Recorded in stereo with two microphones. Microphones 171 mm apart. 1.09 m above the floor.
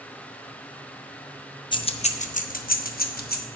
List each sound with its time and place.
1.7 s keys jangling: 30° left (ahead or behind), 0.6 m; by 3.5 s 70° left (ahead or behind), 1.3 m